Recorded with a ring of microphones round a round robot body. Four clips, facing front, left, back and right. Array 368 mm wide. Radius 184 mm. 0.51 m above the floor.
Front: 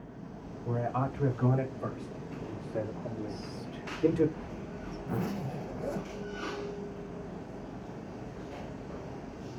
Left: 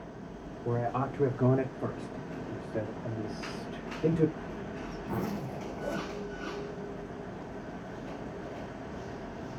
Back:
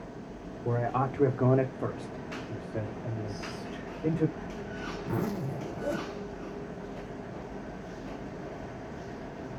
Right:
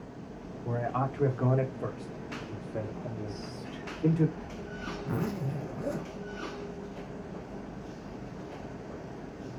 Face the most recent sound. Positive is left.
turn(degrees=-160)